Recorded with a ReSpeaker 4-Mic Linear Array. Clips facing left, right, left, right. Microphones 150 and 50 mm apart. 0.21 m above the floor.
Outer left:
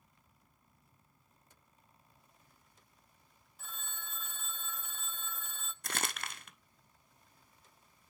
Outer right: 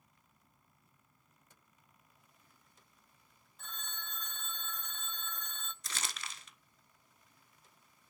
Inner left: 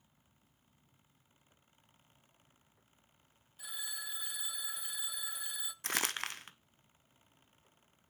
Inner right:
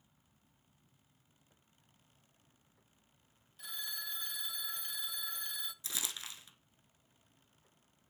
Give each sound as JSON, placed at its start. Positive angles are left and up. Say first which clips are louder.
{"t": 3.6, "sound": "a phone ringing", "louder": "outer right 1 dB, even", "side_deg": 5, "distance_m": 0.5}
{"t": 5.8, "sound": "crumpling", "louder": "outer left 6 dB, inner left 13 dB", "side_deg": 60, "distance_m": 0.6}